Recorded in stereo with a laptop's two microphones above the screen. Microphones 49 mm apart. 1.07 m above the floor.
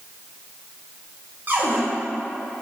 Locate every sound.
1.5 s a cupboard door: 40° right (ahead or behind), 1.5 m